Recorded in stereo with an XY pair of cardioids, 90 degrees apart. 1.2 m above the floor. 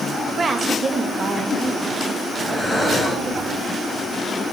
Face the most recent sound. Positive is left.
turn(degrees=10)